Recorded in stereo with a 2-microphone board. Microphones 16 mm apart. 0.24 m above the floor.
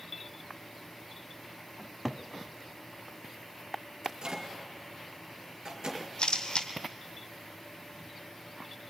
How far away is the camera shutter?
About 1.8 m.